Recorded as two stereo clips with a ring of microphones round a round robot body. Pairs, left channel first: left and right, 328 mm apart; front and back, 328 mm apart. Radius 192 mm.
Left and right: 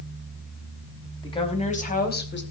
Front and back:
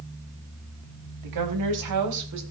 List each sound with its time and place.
1.2 s a woman speaking: 165° left, 4 m; by 2.4 s 145° left, 3.5 m